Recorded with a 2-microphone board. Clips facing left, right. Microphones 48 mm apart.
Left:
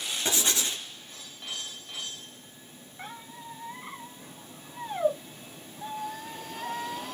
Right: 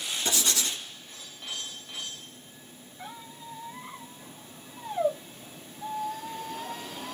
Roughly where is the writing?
Left.